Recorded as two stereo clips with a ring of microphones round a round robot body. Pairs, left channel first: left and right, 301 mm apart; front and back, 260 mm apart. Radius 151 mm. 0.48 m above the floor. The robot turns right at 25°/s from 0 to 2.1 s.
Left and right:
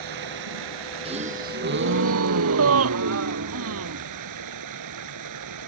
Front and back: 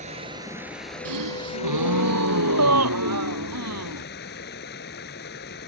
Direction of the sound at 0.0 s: 110° right.